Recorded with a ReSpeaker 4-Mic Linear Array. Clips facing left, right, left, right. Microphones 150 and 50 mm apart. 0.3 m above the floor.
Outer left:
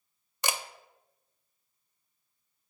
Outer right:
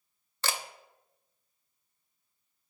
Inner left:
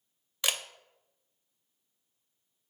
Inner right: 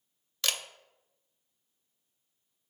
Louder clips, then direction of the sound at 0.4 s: Outer left 1 dB, inner left 1 dB; 15° left (ahead or behind).